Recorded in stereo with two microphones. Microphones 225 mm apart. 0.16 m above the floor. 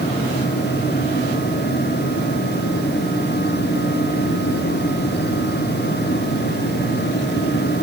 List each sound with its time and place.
Only background noise.